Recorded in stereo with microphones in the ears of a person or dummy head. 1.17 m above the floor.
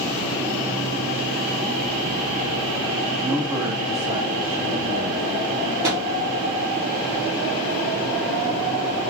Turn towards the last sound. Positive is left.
turn(degrees=-15)  # may be behind; listen again after turning